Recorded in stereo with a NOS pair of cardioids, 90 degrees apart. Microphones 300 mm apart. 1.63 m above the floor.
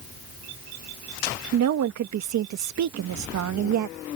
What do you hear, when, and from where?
1.5 s a woman speaking: 70° right